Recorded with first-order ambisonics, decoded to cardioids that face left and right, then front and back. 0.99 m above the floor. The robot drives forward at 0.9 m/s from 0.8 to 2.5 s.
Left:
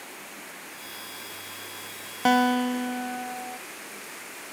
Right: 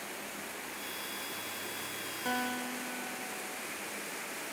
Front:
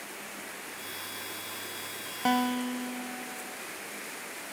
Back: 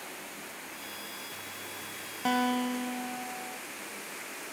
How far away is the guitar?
About 0.5 m.